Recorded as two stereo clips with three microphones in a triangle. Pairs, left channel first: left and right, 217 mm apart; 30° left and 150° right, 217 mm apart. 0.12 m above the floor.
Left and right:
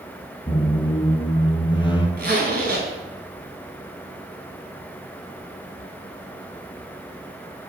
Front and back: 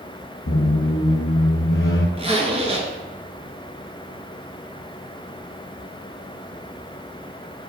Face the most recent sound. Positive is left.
turn(degrees=-100)